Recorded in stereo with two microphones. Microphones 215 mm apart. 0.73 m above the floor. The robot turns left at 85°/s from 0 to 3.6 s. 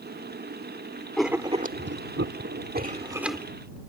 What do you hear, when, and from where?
1.2 s writing: 5° left (ahead or behind); by 3.5 s 10° left (ahead or behind)